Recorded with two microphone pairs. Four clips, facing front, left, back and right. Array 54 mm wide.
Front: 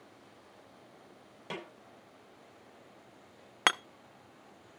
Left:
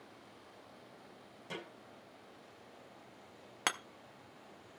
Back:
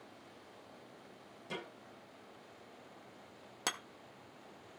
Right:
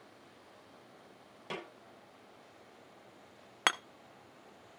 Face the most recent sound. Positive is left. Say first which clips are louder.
# right 5 dB, front 12 dB
turn(degrees=-20)